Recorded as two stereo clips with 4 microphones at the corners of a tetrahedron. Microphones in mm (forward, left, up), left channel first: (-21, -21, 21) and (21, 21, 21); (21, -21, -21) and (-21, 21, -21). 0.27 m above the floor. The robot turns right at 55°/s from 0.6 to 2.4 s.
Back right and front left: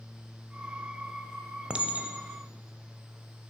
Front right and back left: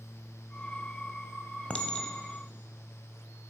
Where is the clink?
5° right, 0.5 m; by 2.2 s 20° left, 0.5 m.